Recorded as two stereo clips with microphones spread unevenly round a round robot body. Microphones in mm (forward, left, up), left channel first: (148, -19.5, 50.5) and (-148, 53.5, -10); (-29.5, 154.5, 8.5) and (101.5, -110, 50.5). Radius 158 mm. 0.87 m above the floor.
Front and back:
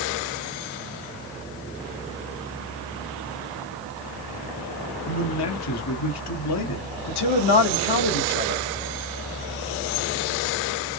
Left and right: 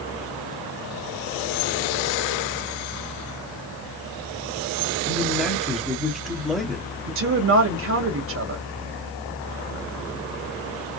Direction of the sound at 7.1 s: 15° right.